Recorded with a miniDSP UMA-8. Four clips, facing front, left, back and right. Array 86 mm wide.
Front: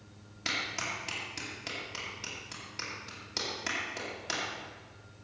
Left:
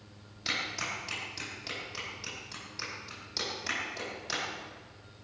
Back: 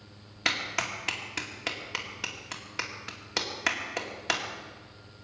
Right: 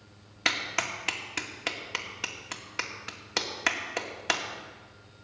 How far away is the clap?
About 2.5 m.